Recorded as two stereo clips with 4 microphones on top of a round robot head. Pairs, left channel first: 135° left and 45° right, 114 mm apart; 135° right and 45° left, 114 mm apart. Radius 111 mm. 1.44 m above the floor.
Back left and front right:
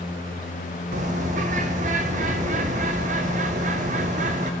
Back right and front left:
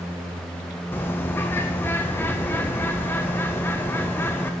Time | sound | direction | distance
0.9 | a bird | 65° right | 0.6 m